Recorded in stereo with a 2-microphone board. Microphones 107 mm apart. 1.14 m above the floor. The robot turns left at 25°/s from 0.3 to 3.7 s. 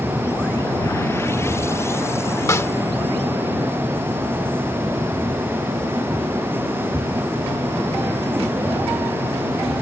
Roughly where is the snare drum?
Left.